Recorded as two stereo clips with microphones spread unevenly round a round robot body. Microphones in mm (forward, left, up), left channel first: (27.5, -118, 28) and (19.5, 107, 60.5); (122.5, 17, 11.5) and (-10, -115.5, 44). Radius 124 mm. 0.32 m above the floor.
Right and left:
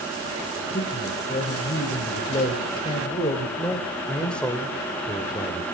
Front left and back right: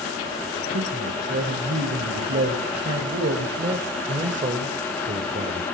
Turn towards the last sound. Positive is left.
turn(degrees=-155)